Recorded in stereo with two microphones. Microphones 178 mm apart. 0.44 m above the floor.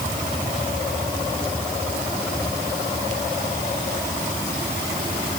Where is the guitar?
No guitar in this recording.